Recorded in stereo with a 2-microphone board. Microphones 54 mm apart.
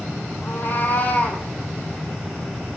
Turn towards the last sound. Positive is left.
turn(degrees=20)  # may be behind; listen again after turning